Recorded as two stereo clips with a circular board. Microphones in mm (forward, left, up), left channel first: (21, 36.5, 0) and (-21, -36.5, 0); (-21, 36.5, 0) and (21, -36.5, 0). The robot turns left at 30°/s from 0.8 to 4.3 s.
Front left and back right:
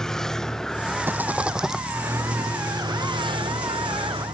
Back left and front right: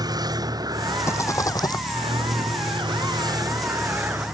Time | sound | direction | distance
0.0 | a vehicle | 20° right | ?
1.1 | a rattle | 175° left | ?